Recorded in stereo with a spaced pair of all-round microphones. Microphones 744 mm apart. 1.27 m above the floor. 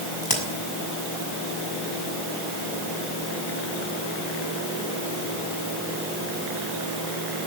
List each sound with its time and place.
0.2 s a crack: 25° left (ahead or behind), 5.5 m